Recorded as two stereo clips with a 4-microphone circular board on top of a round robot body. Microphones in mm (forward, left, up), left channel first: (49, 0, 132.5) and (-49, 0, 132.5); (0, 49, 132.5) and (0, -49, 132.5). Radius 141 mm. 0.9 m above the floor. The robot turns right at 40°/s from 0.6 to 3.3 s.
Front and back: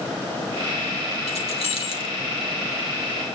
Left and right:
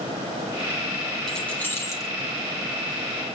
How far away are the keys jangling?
About 2.5 m.